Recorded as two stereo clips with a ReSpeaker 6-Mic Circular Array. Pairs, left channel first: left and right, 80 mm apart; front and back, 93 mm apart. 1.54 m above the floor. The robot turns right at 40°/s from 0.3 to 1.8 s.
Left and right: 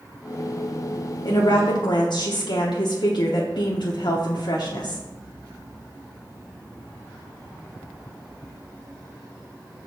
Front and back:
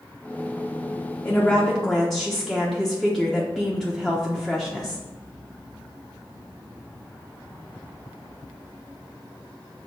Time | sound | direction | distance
1.2 | a woman speaking | 65° left | 0.9 m